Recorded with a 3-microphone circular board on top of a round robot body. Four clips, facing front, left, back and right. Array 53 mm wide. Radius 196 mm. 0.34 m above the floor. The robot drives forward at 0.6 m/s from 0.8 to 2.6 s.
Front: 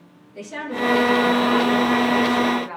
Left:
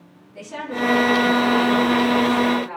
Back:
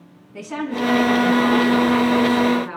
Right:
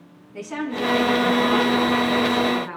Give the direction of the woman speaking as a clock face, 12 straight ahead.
5 o'clock.